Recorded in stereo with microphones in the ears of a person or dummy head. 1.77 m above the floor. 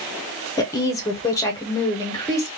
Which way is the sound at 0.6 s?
15° left (ahead or behind).